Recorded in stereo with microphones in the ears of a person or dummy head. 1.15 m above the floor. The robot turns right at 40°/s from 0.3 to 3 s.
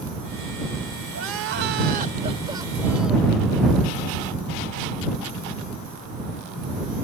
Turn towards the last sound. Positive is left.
turn(degrees=0)